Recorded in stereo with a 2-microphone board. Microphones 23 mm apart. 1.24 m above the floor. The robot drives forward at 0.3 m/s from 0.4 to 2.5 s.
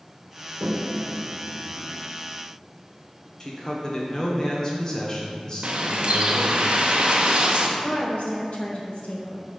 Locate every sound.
0.6 s a toilet flushing: 65° right (ahead or behind), 0.6 m; by 2.0 s 45° right (ahead or behind), 0.8 m
3.4 s a man speaking: 30° left (ahead or behind), 1.1 m
5.6 s a bird: 50° right (ahead or behind), 0.7 m
7.8 s a woman speaking: 60° left (ahead or behind), 1.3 m